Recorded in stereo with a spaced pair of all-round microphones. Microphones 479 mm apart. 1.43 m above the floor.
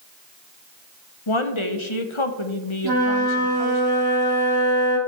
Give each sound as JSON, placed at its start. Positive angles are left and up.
{"t": 1.3, "sound": "a woman speaking", "side_deg": 70, "distance_m": 0.9}
{"t": 2.8, "sound": "a flute", "side_deg": -45, "distance_m": 1.7}